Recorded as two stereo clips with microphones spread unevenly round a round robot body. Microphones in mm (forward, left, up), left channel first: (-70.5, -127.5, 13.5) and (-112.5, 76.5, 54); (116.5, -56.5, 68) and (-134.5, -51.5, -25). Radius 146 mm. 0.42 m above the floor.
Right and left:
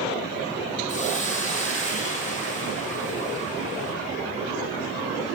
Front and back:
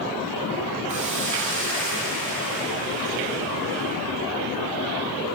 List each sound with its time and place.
0.9 s a hiss: 135° right, 5.5 m